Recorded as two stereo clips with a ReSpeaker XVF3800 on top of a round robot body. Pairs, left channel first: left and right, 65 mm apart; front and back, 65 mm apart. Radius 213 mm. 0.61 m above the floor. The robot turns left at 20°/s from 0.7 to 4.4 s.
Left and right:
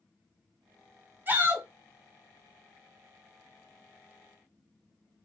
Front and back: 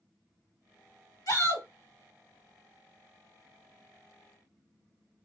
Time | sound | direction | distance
1.3 | a shout | 25° right | 2 m